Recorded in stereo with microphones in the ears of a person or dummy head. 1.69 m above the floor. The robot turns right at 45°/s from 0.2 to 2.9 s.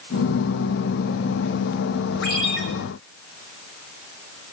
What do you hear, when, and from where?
2.2 s a ringtone: 85° left, 6 m; by 2.6 s 70° left (ahead or behind), 6 m